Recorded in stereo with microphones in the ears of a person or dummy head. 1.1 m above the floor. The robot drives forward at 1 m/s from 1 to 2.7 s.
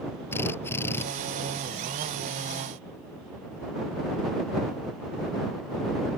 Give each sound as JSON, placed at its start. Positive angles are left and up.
{"t": 0.3, "sound": "a drill", "side_deg": 10}